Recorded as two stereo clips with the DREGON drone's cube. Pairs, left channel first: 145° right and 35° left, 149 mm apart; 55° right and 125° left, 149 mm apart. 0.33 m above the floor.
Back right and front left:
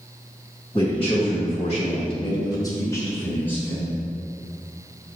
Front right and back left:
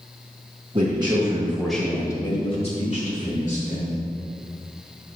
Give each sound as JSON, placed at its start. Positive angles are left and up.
{"t": 0.7, "sound": "a man speaking", "azimuth_deg": 165, "distance_m": 1.9}